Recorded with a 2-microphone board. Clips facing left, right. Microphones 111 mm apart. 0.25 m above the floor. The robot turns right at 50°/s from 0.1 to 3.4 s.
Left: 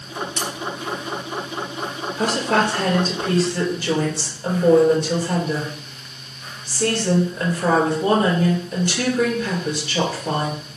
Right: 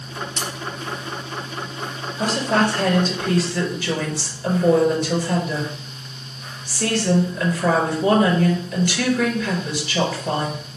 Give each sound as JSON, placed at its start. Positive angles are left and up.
{"t": 0.4, "sound": "cutlery clinking", "side_deg": -20, "distance_m": 3.5}
{"t": 2.2, "sound": "a woman speaking", "azimuth_deg": 90, "distance_m": 4.0}